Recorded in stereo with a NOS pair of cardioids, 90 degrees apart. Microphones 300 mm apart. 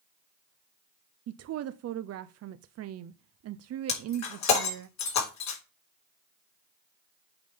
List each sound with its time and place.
1.3 s a woman speaking: 55° right, 0.6 m
3.9 s breaking glass: 70° left, 3.5 m